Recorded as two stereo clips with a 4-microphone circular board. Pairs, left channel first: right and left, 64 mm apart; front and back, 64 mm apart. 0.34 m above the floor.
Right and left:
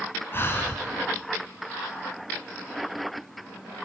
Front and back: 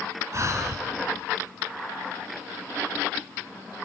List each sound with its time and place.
0.3 s breathing: 140° right, 2.5 m